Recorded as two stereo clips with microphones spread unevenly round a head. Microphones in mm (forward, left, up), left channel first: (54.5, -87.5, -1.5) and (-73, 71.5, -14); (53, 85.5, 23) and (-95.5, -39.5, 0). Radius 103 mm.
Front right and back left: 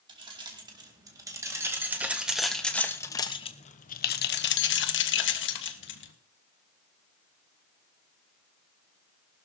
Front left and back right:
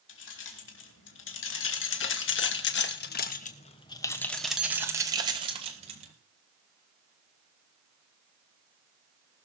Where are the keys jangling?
60° left, 2.5 m; by 6.1 s 80° right, 1.8 m.